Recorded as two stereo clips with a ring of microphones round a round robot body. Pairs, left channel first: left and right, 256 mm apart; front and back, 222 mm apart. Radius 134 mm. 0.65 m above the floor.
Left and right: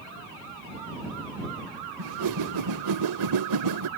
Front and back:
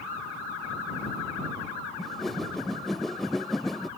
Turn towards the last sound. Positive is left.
turn(degrees=-90)